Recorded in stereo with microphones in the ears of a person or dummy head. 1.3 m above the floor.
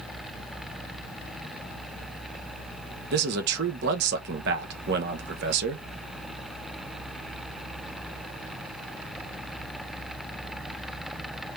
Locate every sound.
3.1 s a man speaking: 65° right (ahead or behind), 1.0 m